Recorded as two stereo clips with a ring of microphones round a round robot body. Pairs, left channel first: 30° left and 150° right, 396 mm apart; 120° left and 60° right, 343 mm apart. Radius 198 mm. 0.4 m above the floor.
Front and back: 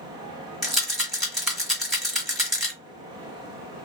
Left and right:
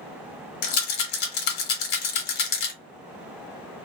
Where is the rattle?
120° left, 1.1 m.